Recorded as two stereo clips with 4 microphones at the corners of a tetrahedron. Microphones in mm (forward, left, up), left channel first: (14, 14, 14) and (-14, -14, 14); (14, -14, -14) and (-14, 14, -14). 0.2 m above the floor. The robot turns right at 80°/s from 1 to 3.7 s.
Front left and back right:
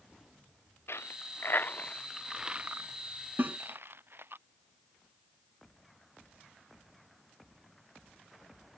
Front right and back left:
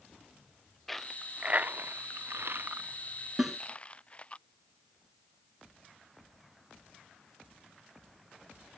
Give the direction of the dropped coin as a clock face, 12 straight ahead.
11 o'clock.